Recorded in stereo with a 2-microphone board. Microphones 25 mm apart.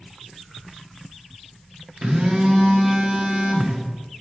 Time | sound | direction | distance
2.0 | a phone buzzing | 20° right (ahead or behind) | 1.5 m